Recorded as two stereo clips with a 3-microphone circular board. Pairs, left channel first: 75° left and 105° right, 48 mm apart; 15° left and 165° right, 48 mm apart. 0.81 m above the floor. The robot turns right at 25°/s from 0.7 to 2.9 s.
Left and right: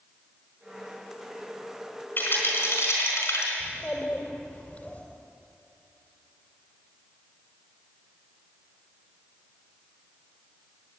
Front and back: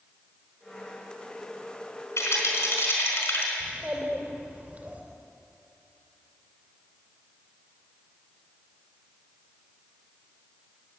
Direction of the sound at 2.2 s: 30° left.